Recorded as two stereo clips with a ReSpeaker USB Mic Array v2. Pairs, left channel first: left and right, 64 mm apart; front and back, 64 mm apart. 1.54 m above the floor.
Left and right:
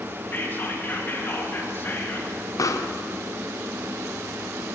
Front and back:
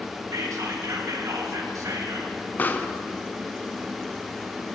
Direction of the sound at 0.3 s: 150° left.